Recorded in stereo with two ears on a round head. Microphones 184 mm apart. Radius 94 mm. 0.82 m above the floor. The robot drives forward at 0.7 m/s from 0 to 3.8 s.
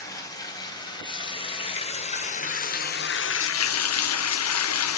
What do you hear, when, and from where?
0.0 s running water: 15° left (ahead or behind), 3 m; by 5.0 s 80° left, 0.9 m